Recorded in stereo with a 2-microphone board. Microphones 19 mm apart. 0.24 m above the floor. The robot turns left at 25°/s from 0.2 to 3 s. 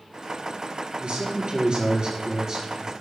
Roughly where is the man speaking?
Behind right.